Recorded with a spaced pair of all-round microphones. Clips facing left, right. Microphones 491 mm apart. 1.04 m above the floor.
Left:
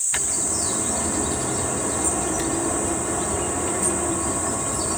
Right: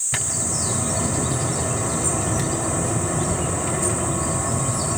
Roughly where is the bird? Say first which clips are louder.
Right 1 dB; right.